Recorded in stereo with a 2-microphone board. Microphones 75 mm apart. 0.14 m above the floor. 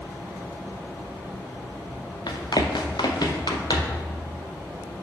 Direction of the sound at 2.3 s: 85° left.